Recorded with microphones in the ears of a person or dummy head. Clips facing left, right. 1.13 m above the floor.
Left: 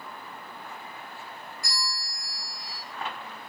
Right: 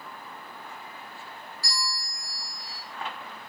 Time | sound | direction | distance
1.6 | a bell | 35° right (ahead or behind) | 1.2 m